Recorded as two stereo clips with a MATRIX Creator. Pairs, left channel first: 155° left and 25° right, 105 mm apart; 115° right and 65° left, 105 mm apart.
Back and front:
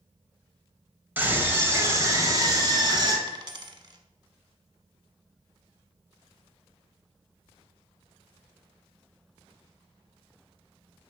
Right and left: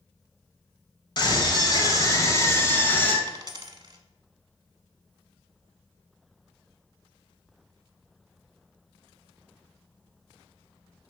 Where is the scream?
90° right, 2 m; by 3.2 s 45° right, 2 m.